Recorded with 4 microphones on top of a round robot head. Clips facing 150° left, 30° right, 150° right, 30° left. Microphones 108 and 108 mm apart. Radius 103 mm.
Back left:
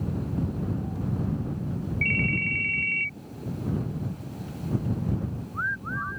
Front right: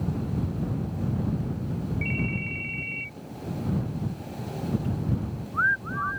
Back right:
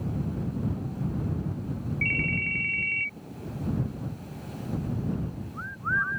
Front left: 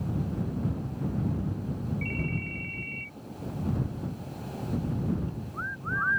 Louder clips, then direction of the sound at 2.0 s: Back left 1 dB, back right 1 dB; 175° right.